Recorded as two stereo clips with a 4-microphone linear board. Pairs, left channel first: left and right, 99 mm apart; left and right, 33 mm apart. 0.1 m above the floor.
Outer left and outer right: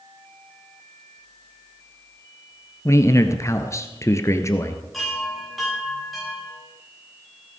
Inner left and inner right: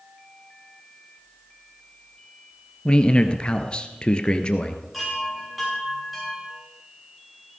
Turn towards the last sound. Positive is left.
turn(degrees=0)  # may be behind; listen again after turning